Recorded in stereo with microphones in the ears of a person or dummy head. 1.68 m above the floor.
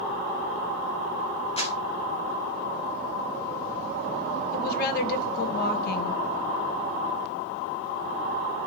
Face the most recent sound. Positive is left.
turn(degrees=50)  # may be behind; listen again after turning